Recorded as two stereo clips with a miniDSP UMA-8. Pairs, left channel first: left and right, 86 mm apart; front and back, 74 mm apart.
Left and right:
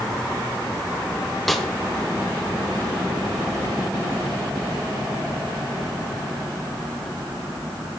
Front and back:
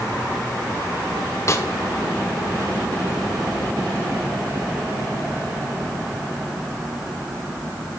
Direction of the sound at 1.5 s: 5° left.